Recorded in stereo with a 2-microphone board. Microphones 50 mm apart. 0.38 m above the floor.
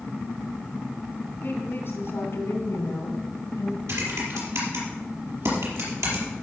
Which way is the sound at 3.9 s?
70° right (ahead or behind).